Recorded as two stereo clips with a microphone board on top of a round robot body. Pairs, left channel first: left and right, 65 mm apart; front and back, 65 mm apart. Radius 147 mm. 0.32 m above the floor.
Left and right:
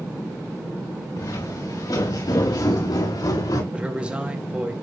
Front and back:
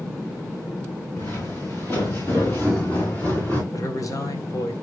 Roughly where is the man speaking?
Ahead.